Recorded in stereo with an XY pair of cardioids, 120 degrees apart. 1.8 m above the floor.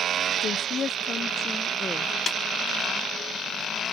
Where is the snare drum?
30° left.